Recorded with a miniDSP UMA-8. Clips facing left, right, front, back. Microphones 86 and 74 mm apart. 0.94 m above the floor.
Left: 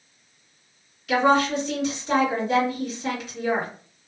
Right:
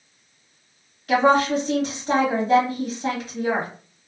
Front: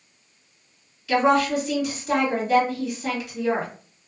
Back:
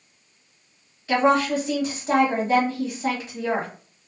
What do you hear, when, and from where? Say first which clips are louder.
1.1 s a woman speaking: right 2 dB, even; 130° right, 1.4 m